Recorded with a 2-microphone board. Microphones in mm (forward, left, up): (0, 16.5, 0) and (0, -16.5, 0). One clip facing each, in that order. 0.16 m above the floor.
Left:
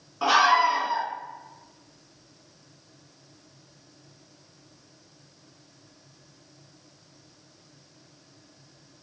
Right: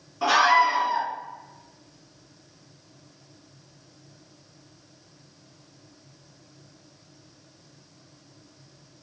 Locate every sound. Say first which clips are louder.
0.2 s a scream: right 1 dB; 20° left (ahead or behind), 2 m